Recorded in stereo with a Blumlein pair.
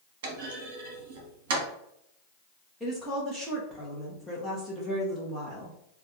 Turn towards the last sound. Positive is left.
turn(degrees=0)